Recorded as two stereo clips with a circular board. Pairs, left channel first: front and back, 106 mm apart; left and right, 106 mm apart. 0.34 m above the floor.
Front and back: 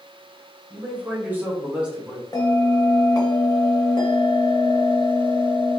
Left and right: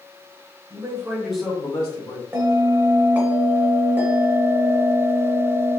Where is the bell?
30° right, 0.7 m.